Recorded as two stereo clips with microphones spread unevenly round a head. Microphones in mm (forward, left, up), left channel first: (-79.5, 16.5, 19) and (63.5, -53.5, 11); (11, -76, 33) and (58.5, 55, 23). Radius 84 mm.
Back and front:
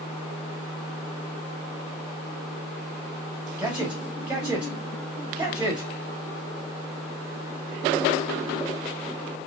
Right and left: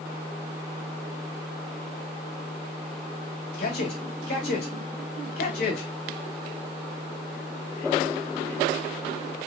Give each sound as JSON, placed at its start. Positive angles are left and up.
{"t": 3.6, "sound": "a man speaking", "azimuth_deg": -105, "distance_m": 2.5}